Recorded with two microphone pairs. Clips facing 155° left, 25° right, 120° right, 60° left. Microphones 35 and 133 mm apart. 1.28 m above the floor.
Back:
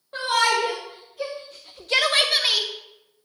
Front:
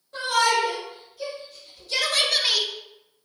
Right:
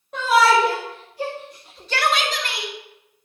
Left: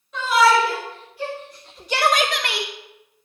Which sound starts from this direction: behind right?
A shout, at 0.1 s.